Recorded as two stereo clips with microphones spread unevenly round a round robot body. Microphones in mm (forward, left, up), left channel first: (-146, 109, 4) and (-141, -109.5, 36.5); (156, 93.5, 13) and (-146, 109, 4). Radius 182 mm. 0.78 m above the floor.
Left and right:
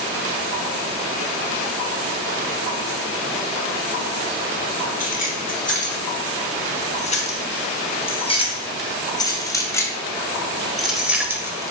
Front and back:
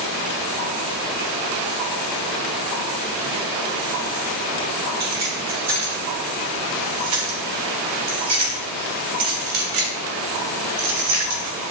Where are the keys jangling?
145° left, 5 m; by 11.7 s 165° right, 2 m.